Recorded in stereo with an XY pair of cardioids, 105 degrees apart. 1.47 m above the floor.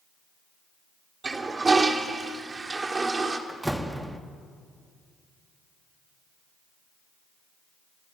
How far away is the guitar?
I don't hear a guitar.